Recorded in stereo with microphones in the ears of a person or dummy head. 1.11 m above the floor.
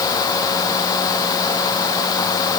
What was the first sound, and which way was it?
Only background noise.